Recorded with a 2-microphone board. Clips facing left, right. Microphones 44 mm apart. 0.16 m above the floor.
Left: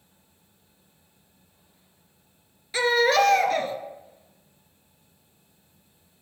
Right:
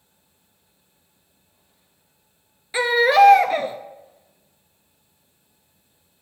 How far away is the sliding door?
No sliding door in this recording.